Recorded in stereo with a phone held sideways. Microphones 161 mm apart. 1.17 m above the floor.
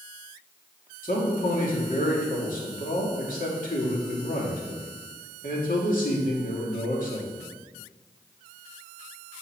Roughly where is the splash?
I don't hear a splash.